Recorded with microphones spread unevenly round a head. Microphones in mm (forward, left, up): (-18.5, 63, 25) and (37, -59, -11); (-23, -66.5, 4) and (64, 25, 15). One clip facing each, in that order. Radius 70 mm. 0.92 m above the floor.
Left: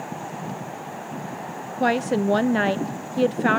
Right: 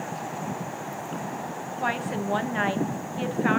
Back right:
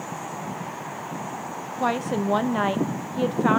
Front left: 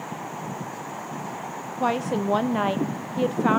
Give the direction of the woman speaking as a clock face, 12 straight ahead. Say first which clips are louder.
Left 8 dB, even; 7 o'clock.